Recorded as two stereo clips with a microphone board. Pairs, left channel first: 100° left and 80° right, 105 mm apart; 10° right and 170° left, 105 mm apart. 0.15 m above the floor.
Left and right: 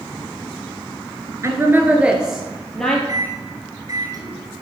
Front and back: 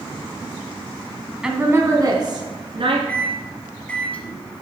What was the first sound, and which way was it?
A woman speaking, 110° right.